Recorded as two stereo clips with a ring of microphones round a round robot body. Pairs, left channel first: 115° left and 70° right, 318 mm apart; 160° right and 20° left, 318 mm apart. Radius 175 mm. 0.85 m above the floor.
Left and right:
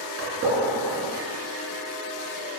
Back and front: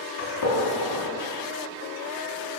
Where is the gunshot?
125° right, 3.5 m.